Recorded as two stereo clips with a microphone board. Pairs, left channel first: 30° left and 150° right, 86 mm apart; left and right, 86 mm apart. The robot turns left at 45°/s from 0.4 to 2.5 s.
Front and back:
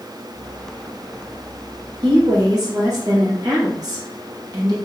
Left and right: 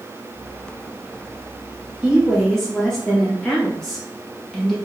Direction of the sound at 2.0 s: 165° right.